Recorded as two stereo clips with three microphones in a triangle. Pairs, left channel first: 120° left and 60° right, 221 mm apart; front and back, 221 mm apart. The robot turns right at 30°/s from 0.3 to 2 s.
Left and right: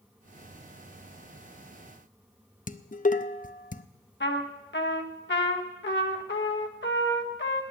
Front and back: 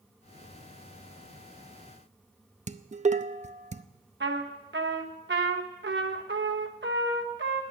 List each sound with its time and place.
2.7 s dishes clattering: 145° left, 0.6 m
4.2 s a trumpet: 150° left, 1.3 m